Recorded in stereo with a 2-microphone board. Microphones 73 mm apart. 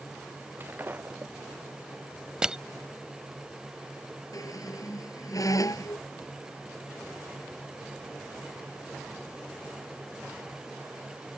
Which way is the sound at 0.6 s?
30° right (ahead or behind).